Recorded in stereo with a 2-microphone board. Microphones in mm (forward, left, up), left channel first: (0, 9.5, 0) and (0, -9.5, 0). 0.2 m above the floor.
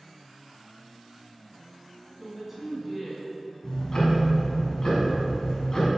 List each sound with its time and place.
2.2 s a woman speaking: 10° right (ahead or behind), 1.4 m; by 3.5 s 5° right (ahead or behind), 2 m
3.6 s ticking: 35° left (ahead or behind), 1.6 m